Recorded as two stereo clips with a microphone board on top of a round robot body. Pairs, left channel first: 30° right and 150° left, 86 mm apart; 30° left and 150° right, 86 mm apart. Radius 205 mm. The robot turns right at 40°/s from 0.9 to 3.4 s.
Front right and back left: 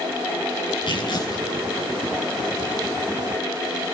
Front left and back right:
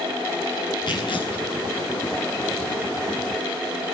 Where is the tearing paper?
5° right, 9 m; by 1.5 s 20° left, 9 m.